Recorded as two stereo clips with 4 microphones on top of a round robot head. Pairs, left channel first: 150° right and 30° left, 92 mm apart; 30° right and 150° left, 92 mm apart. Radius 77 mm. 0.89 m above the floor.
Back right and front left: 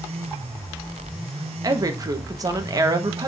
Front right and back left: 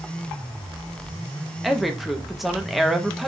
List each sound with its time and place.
1.6 s a woman speaking: 60° left, 0.9 m